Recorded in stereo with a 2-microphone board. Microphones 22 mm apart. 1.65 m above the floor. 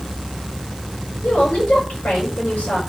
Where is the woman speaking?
90° left, 9 m.